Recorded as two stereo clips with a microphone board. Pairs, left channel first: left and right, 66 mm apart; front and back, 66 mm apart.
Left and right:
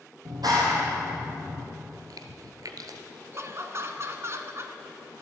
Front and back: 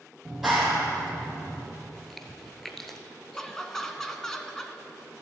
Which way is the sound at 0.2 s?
90° right.